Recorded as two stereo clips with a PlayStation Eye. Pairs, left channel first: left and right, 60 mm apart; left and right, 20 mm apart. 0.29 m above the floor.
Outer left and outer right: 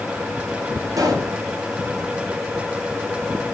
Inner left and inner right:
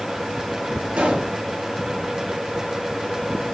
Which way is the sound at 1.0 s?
70° right (ahead or behind).